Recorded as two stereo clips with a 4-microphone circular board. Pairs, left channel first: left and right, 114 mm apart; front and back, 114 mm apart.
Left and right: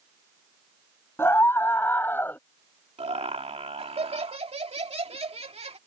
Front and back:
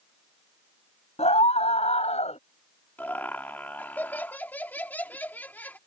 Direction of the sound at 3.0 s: 75° right.